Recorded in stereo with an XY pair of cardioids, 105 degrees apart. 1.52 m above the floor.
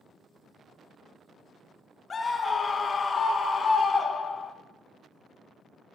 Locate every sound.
2.1 s a scream: 35° left, 0.8 m